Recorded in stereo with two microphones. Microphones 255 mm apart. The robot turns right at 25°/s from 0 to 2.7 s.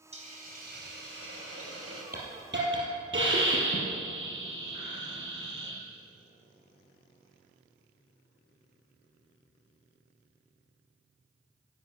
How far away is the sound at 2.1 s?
About 3.5 m.